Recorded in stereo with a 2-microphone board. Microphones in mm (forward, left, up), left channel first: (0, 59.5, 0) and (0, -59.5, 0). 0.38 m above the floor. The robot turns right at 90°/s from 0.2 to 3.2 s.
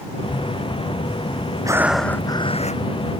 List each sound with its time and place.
1.6 s breathing: 30° right; by 2.8 s 75° left